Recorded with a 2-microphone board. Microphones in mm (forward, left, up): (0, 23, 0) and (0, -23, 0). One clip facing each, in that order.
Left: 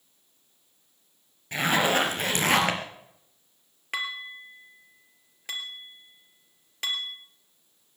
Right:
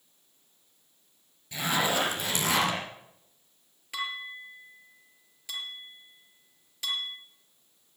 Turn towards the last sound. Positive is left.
turn(degrees=45)  # may be behind; listen again after turning